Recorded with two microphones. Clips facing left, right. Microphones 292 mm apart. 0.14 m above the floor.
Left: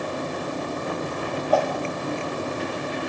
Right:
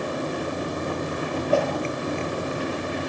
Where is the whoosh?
30° right (ahead or behind), 2.5 m.